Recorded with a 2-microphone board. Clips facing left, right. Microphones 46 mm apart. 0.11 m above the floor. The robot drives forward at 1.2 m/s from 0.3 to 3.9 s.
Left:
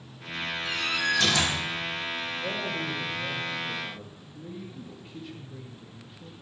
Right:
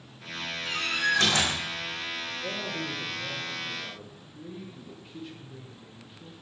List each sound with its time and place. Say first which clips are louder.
0.7 s a door slam: right 1 dB; 45° right (ahead or behind), 3 m; by 1.6 s 35° right (ahead or behind), 4 m
2.4 s a man speaking: left 2 dB; centre (ahead or behind), 3.5 m; by 6.3 s 5° right (ahead or behind), 2.0 m